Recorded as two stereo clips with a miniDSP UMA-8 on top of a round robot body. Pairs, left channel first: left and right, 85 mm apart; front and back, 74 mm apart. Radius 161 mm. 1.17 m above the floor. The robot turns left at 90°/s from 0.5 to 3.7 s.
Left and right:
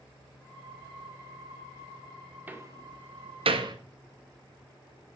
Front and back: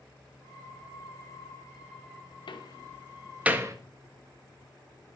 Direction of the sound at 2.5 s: 15° right.